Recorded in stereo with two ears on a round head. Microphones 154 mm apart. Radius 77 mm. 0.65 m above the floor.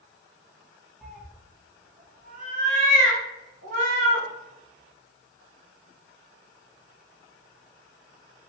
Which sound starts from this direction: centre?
A cat meowing, at 1.0 s.